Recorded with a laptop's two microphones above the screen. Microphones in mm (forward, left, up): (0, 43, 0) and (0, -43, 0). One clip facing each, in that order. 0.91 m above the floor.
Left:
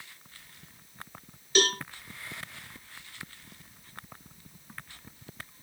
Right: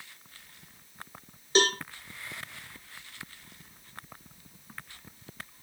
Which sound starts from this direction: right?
A cowbell, at 1.6 s.